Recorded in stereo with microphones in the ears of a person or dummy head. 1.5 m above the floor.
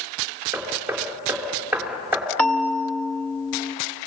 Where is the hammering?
10° right (ahead or behind), 3 m.